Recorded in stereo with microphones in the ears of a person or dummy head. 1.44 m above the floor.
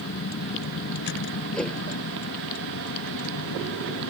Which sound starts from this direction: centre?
A whoosh, at 1.5 s.